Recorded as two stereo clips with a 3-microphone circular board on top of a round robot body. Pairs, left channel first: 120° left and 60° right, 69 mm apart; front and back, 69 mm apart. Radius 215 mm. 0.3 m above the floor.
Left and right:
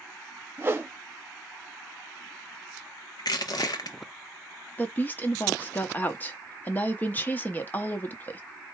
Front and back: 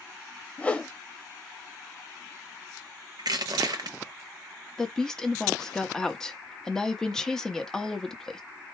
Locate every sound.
0.6 s a whoosh: 50° right, 1.3 m
3.2 s crushing: 150° left, 0.6 m
4.8 s a woman speaking: 75° left, 1.3 m